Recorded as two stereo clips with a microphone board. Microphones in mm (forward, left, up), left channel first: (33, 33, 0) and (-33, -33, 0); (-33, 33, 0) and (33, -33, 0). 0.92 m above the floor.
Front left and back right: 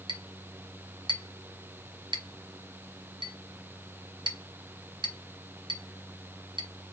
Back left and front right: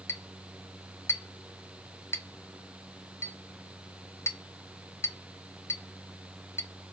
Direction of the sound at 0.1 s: 165° right.